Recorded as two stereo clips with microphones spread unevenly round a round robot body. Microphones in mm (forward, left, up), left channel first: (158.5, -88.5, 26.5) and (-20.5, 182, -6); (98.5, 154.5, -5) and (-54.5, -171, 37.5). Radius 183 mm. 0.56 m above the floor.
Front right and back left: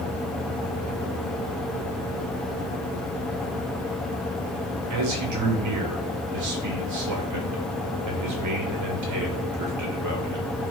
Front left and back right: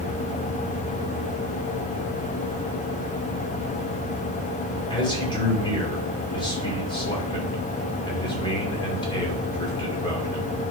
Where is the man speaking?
140° left, 2.5 m.